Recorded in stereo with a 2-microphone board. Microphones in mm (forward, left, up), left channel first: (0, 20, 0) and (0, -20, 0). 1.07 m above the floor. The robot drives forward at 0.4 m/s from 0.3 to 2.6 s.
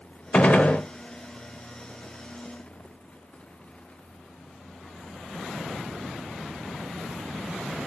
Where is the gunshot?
30° left (ahead or behind), 0.9 m; by 0.8 s 35° left (ahead or behind), 0.9 m.